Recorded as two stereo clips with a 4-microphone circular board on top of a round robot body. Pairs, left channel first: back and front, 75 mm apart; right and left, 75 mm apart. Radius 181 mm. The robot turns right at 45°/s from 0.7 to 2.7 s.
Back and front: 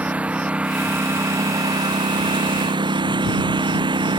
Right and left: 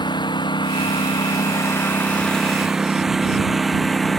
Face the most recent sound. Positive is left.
turn(degrees=0)